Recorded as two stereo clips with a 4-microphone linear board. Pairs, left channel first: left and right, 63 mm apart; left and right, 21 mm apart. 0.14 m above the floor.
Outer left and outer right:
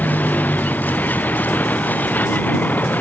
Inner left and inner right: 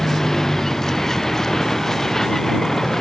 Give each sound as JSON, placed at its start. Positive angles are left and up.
{"t": 0.0, "sound": "a vehicle", "side_deg": 30}